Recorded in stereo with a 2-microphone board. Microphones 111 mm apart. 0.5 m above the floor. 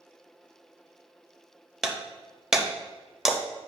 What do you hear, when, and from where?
1.8 s breaking glass: 5° right (ahead or behind), 0.9 m